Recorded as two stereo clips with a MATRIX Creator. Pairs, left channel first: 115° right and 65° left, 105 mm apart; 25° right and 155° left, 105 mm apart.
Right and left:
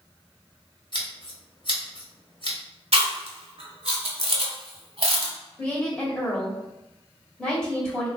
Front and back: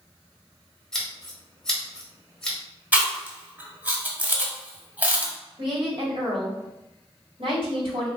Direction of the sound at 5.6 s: 165° left.